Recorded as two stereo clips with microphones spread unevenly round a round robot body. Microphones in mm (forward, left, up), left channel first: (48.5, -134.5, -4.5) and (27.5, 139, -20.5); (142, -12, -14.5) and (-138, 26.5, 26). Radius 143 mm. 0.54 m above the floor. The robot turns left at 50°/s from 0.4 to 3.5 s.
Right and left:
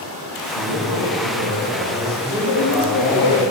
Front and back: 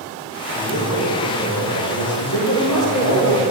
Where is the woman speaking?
75° right, 1.6 m; by 3.5 s 130° right, 1.6 m.